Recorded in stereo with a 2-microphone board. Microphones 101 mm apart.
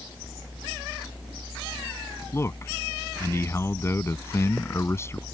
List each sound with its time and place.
2.3 s a man speaking: 25° left (ahead or behind)